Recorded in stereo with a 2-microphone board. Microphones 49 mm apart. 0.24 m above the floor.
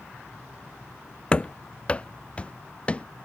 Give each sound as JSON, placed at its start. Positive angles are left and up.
{"t": 1.3, "sound": "running footsteps", "side_deg": 25}